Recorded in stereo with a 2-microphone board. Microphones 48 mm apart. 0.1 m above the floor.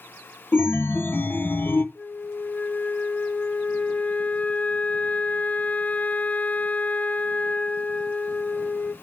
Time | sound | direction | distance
0.5 | a chime | 50° left (ahead or behind) | 0.7 m
1.9 | a flute | 35° left (ahead or behind) | 0.8 m